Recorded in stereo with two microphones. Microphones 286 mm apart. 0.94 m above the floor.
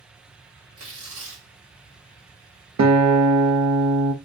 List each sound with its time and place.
0.8 s tearing paper: 50° right (ahead or behind), 1.5 m
2.8 s a guitar: 70° right (ahead or behind), 0.7 m